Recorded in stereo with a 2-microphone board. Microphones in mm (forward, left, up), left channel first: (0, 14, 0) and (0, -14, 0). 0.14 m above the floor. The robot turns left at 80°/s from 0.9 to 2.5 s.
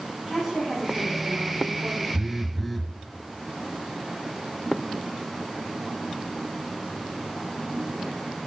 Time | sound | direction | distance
0.2 | a woman speaking | 15° right | 6 m
2.1 | a phone buzzing | 25° right (ahead or behind) | 0.6 m